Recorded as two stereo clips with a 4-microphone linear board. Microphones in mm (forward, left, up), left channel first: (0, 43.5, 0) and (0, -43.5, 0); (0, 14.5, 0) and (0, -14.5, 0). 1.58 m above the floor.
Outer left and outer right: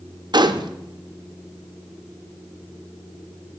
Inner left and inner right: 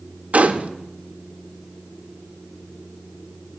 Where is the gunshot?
55° right (ahead or behind), 0.6 m.